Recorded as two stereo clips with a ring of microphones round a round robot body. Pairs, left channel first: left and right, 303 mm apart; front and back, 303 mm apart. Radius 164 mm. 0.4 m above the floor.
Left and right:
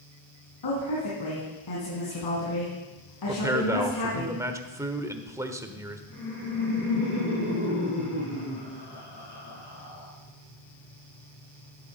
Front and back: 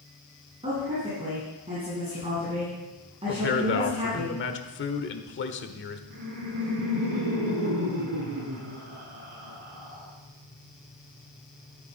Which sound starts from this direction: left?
A woman speaking, at 0.6 s.